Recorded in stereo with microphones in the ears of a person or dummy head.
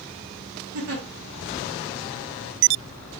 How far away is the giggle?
About 1.2 m.